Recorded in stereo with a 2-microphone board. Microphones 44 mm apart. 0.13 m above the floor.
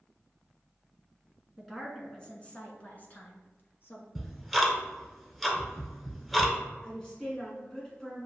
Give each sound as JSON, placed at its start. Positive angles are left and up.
{"t": 1.6, "sound": "a woman speaking", "side_deg": 5, "distance_m": 1.1}
{"t": 4.2, "sound": "ticking", "side_deg": 5, "distance_m": 0.9}
{"t": 6.8, "sound": "a woman speaking", "side_deg": 15, "distance_m": 1.5}